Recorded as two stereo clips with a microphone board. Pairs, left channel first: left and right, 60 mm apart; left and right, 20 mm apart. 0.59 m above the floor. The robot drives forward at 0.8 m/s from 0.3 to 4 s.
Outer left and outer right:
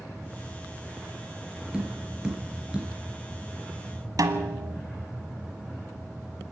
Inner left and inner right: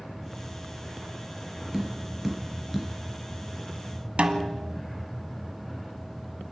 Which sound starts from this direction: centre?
Tapping, at 1.7 s.